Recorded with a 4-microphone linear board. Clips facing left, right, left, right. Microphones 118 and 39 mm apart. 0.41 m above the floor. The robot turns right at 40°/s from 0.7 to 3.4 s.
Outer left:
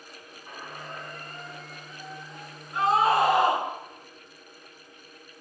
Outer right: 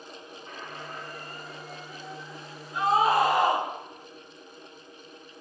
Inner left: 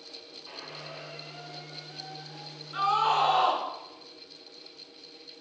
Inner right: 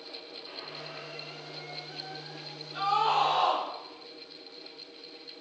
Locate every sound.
0.5 s a squeak: 165° left, 1.5 m; by 2.6 s 115° right, 1.5 m
2.7 s a scream: 55° left (ahead or behind), 5 m; by 3.6 s 75° left (ahead or behind), 5 m